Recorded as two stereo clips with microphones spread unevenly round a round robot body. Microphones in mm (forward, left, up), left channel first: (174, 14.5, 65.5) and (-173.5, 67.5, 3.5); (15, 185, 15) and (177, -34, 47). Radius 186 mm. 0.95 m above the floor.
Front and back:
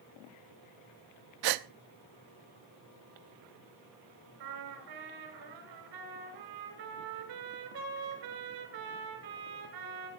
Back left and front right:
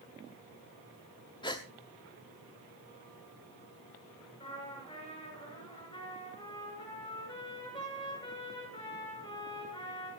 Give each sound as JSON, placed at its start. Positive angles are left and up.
{"t": 1.4, "sound": "a gasp", "azimuth_deg": -155, "distance_m": 0.7}
{"t": 4.4, "sound": "a trumpet", "azimuth_deg": -155, "distance_m": 7.5}